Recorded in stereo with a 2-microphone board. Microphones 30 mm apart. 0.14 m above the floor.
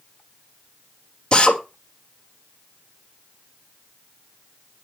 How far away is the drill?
About 3 m.